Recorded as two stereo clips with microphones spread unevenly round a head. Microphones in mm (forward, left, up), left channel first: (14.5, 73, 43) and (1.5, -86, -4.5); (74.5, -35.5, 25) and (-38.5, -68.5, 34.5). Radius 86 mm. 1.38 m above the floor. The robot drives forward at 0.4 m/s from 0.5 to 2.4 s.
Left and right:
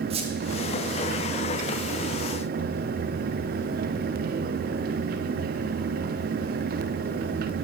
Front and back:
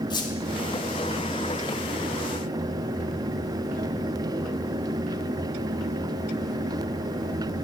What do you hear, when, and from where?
0.1 s a squeak: 35° right, 1.9 m